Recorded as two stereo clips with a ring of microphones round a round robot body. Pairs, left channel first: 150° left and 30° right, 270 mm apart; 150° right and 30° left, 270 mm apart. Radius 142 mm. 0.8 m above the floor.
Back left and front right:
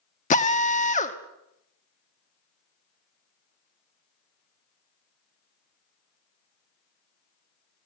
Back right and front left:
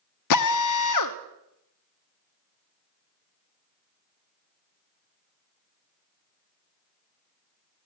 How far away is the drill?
About 1.1 m.